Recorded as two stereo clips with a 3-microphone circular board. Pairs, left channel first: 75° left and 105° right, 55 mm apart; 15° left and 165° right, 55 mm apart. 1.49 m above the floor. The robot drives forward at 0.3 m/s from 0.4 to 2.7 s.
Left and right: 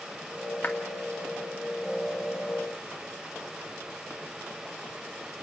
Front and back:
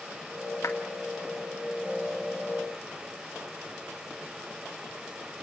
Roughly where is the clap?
Ahead left.